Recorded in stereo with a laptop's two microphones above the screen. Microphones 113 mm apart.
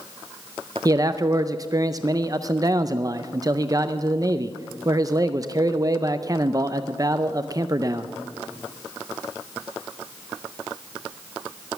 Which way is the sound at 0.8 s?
30° right (ahead or behind).